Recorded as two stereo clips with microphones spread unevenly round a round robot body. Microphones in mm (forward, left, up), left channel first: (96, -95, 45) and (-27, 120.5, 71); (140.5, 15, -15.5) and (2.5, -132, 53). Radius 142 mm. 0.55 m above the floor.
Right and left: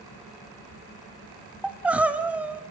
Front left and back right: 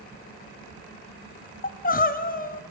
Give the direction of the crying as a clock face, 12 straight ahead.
11 o'clock.